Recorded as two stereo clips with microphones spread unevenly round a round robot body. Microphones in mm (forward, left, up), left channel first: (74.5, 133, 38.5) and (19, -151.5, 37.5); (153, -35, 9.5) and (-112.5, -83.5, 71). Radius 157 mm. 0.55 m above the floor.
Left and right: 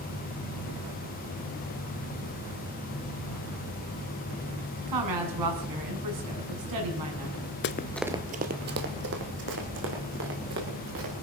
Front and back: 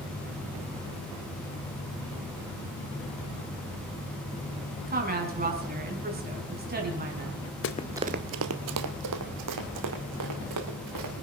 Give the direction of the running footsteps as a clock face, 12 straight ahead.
10 o'clock.